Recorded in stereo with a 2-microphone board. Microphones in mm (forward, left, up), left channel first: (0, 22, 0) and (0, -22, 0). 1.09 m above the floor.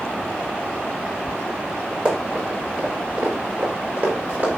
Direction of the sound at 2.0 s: 25° right (ahead or behind).